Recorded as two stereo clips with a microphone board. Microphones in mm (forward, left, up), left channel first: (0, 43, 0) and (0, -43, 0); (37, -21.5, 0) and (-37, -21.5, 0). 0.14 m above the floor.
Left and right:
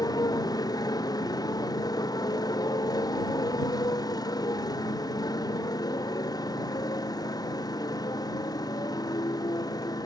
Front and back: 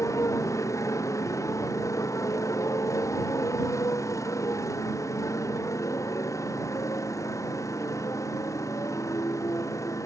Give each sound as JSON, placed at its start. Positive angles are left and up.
{"t": 0.0, "sound": "a motorcycle", "azimuth_deg": 45}